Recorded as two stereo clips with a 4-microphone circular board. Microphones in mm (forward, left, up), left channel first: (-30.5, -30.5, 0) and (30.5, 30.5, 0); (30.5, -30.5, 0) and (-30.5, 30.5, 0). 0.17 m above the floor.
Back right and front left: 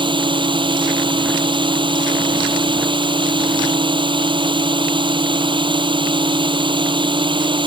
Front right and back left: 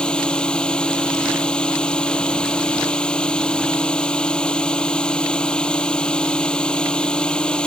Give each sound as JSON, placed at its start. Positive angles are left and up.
{"t": 0.0, "sound": "a drone", "azimuth_deg": 30}